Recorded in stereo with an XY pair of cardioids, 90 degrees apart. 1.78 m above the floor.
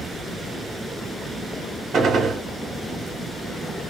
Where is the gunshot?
65° right, 1.7 m.